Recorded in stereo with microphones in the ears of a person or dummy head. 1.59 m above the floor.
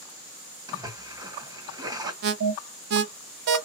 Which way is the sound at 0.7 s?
20° right (ahead or behind).